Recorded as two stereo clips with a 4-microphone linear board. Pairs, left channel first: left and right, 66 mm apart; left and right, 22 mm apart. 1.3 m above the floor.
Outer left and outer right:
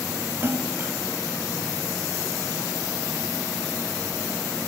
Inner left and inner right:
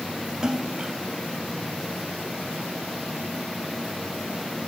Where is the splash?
35° right (ahead or behind).